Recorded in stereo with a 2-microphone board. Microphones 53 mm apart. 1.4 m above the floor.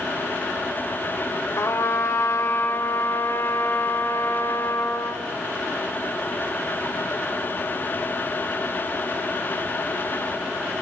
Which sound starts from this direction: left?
A trumpet, at 1.6 s.